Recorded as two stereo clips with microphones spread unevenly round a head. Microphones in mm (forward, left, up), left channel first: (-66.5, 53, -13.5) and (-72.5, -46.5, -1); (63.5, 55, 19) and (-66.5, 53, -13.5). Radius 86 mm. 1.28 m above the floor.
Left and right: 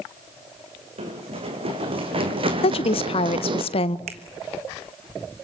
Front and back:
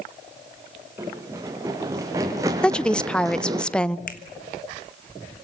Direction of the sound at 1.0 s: 100° right.